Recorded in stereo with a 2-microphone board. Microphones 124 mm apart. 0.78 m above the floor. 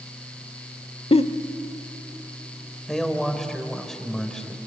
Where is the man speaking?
5° left (ahead or behind), 2.5 m.